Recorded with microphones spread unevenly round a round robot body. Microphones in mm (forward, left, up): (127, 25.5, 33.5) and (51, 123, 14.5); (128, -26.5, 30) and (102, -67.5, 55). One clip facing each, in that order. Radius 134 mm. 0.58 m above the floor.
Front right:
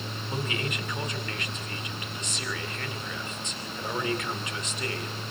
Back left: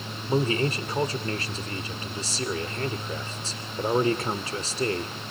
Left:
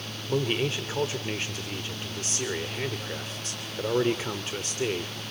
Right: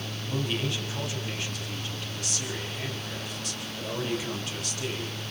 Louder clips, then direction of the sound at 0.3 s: Back left 9 dB, left 4 dB; 85° left.